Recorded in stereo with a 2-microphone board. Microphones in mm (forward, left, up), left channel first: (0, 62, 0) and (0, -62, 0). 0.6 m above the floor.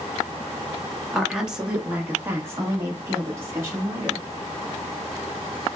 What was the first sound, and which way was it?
A woman speaking, centre (ahead or behind).